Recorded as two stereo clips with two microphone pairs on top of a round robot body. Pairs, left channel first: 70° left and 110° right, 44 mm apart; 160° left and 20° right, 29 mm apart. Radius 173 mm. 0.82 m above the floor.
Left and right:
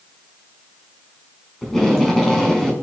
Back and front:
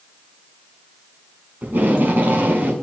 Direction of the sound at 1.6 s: 10° right.